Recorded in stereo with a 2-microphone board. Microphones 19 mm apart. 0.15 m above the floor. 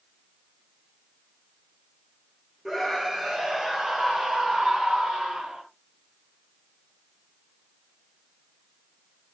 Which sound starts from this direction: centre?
A scream, at 2.6 s.